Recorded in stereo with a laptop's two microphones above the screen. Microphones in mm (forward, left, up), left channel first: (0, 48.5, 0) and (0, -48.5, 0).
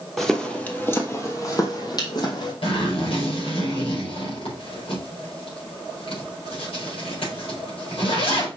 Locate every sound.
0.2 s footsteps: centre (ahead or behind), 1.8 m; by 2.5 s 50° left (ahead or behind), 3 m
2.6 s a zipper: 75° left (ahead or behind), 4.5 m